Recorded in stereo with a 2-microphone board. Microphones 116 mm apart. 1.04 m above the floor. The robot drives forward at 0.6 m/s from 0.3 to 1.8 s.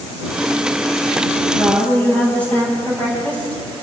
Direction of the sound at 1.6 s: 15° left (ahead or behind).